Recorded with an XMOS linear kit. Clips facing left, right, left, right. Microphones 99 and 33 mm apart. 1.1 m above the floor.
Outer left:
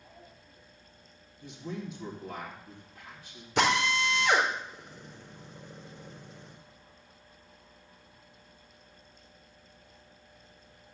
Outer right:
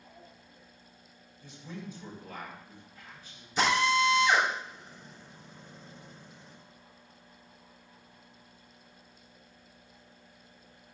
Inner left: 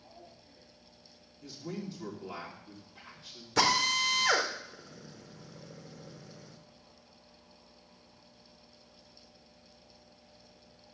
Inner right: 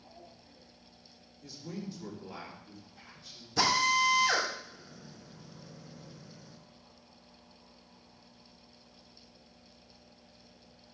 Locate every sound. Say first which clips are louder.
1.4 s a man speaking: outer left 4 dB, inner left 1 dB; 65° left (ahead or behind), 3.5 m
3.6 s a drill: outer right 1 dB, inner right 1 dB; 75° left (ahead or behind), 3.5 m